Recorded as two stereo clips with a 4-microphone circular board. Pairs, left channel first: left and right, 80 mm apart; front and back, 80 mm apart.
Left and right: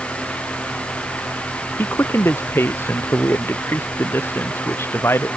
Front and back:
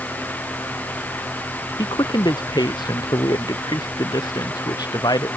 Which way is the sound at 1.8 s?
30° left.